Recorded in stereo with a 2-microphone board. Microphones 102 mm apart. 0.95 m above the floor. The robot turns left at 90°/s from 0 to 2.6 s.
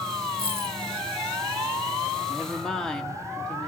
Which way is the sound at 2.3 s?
20° right (ahead or behind).